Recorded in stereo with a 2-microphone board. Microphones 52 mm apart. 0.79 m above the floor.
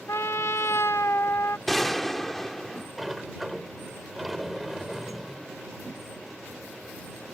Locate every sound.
0.1 s a trumpet: 60° left (ahead or behind)
1.7 s a gunshot: 5° left (ahead or behind)
3.0 s a sliding door: centre (ahead or behind)